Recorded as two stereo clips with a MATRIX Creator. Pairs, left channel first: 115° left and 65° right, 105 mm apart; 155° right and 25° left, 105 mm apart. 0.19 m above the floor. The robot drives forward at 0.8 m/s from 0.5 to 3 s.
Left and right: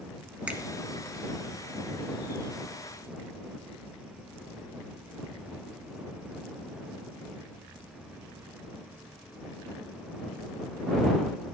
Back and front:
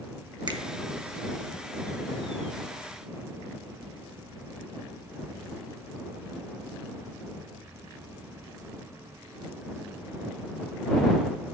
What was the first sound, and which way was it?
A finger snap, 5° left.